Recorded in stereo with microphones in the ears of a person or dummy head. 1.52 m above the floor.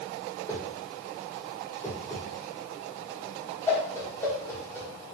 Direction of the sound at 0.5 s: 15° left (ahead or behind).